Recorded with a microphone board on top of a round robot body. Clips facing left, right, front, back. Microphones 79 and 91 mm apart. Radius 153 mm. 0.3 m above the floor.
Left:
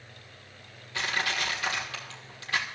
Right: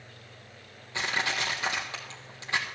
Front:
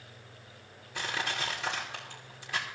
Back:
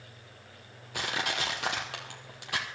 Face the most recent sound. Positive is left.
turn(degrees=-160)